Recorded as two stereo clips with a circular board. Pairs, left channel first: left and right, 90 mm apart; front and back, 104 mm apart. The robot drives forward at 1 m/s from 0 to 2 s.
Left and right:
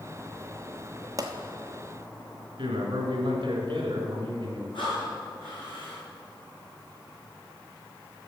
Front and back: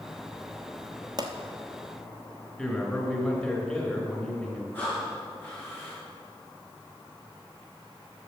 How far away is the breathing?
About 4 m.